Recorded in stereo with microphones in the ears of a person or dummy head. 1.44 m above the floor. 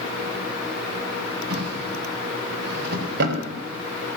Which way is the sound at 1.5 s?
60° right (ahead or behind).